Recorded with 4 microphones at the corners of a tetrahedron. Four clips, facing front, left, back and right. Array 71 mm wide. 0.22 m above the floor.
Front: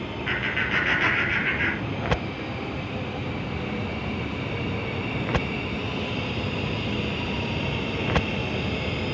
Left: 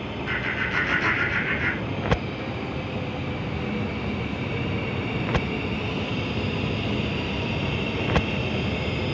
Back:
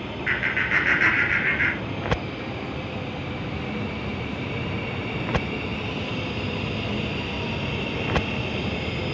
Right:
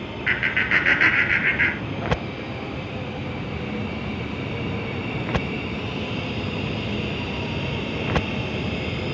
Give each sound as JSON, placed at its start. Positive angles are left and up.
{"t": 0.3, "sound": "laughter", "azimuth_deg": -105, "distance_m": 4.5}